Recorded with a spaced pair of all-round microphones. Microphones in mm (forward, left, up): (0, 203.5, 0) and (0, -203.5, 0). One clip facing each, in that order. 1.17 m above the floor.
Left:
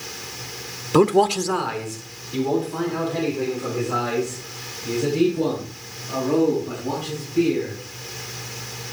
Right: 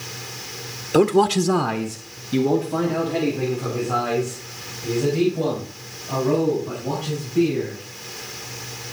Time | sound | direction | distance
0.9 | a man speaking | 15° left (ahead or behind) | 0.6 m